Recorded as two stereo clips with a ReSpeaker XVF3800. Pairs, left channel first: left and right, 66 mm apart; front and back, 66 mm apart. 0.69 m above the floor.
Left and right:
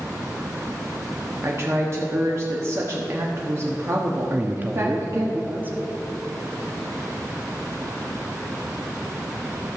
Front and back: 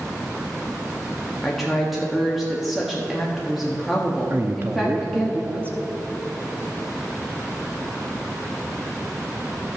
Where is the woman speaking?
95° right, 1.3 m.